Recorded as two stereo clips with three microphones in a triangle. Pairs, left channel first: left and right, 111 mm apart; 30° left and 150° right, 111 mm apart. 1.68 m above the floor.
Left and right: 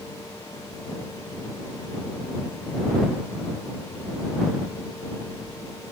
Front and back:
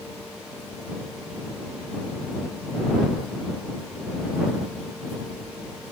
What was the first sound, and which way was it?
Only background noise.